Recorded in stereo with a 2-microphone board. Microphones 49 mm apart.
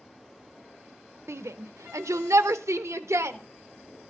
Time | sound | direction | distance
1.3 | a shout | 60° right (ahead or behind) | 0.6 m